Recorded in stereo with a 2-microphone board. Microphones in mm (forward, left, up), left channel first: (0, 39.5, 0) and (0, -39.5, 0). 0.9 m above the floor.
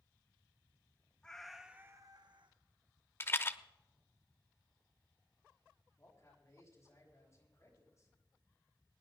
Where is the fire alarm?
I don't hear a fire alarm.